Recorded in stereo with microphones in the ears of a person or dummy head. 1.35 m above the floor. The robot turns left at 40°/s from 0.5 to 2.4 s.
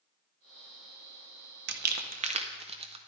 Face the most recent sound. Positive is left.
turn(degrees=-30)  # may be behind; listen again after turning